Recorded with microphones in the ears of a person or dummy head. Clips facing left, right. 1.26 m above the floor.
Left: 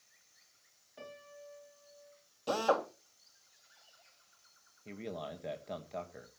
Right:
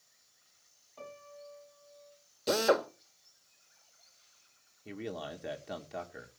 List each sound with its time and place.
1.0 s a piano: 15° left (ahead or behind), 3 m
2.5 s a drill: 30° right (ahead or behind), 1.2 m
4.8 s a man speaking: 10° right (ahead or behind), 1.4 m